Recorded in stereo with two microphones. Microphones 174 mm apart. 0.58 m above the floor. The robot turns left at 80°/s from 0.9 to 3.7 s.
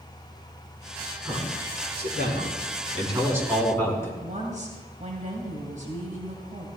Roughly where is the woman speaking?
Right.